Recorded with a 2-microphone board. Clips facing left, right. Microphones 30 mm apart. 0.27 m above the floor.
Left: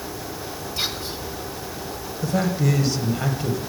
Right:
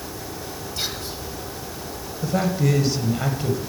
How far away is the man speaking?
About 1.2 m.